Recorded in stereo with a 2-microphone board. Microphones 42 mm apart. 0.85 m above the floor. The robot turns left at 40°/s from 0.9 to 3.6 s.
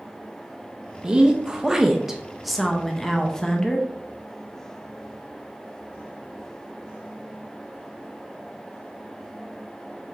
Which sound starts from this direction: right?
A woman speaking, at 1.0 s.